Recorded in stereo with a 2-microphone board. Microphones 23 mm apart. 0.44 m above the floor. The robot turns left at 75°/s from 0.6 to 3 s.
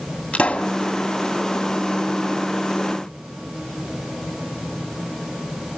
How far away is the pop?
About 1.9 m.